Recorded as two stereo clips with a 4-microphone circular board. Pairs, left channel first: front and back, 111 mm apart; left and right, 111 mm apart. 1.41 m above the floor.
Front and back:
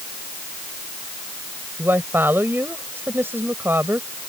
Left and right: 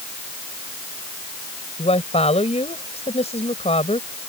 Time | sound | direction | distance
1.8 | a woman speaking | 110° left | ?